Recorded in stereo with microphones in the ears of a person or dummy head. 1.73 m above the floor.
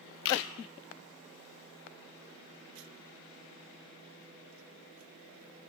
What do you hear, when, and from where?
0.2 s a camera shutter: 65° left (ahead or behind), 1.1 m